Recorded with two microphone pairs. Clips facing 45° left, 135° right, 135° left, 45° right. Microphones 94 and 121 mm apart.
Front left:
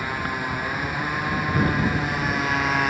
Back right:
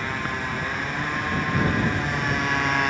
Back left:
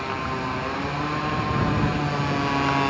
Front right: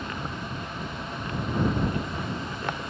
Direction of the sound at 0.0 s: 125° left.